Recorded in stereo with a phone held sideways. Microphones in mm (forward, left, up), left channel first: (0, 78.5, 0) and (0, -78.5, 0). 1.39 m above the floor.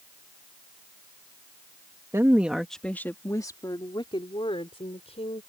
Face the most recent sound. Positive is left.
turn(degrees=40)  # may be behind; listen again after turning